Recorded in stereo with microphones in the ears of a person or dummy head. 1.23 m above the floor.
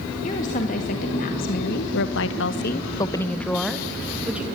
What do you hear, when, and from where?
0.2 s a woman speaking: 40° left (ahead or behind), 2.5 m; by 4.5 s 15° right (ahead or behind), 1.9 m